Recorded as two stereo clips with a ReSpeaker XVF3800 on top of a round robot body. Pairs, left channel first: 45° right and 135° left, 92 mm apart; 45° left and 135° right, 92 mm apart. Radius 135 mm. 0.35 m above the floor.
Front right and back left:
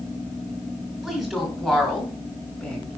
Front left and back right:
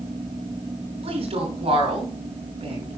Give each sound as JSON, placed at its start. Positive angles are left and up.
{"t": 1.0, "sound": "a woman speaking", "azimuth_deg": -135, "distance_m": 5.5}